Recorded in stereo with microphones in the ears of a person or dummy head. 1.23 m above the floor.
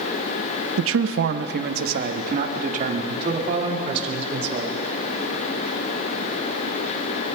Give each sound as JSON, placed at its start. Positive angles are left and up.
{"t": 0.8, "sound": "a man speaking", "side_deg": -75, "distance_m": 0.6}